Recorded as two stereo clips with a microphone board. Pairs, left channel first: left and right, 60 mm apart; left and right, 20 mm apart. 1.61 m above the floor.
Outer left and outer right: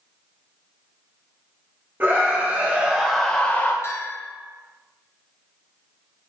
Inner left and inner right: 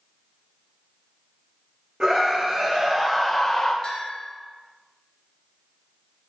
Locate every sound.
2.0 s a scream: 35° right (ahead or behind), 2 m; by 3.7 s 35° left (ahead or behind), 1.1 m
3.8 s a bell: 45° left (ahead or behind), 0.9 m